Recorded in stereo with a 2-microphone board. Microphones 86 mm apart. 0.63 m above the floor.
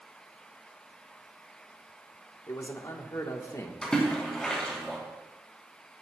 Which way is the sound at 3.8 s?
10° left (ahead or behind).